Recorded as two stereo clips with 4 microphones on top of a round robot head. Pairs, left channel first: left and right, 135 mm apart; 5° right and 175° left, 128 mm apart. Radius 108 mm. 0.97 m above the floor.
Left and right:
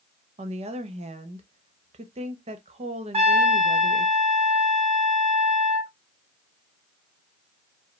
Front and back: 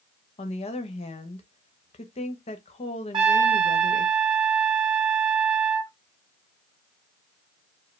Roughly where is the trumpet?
Behind right.